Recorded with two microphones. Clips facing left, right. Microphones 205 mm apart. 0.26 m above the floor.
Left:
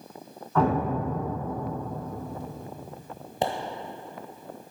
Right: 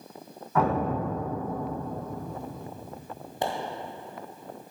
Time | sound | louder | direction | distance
0.6 | an explosion | left 1 dB | 5° right (ahead or behind) | 1.7 m
3.4 | a pop | left 2 dB | 25° left (ahead or behind) | 1.1 m